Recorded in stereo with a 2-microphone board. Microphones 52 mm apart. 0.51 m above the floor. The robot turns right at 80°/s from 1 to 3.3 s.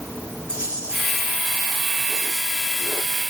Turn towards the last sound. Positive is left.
turn(degrees=160)